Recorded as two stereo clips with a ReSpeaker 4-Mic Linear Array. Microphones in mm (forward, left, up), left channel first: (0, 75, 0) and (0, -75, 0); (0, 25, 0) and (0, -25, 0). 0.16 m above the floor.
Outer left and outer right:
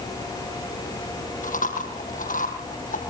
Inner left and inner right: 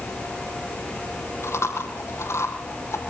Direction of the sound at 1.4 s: 70° left (ahead or behind).